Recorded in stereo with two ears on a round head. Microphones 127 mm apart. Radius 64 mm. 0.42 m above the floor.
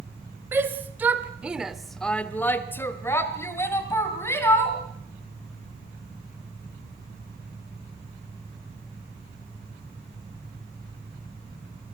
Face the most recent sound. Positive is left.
turn(degrees=20)  # may be behind; listen again after turning